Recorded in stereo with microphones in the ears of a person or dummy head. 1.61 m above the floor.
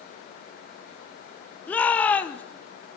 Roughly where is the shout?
Centre.